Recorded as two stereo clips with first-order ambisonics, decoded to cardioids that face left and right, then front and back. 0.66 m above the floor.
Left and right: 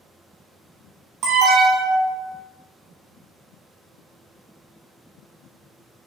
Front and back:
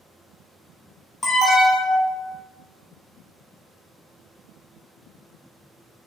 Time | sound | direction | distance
1.2 | an alarm | 75° right | 0.9 m